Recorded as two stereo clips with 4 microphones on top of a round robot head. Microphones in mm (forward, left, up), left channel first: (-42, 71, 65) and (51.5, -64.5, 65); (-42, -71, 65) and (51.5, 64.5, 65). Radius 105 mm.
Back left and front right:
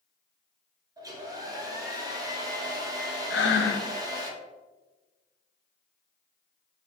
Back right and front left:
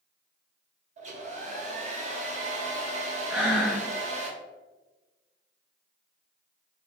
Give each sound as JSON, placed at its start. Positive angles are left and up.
{"t": 1.0, "sound": "a hair dryer", "azimuth_deg": 10, "distance_m": 0.9}
{"t": 3.3, "sound": "breathing", "azimuth_deg": 135, "distance_m": 0.6}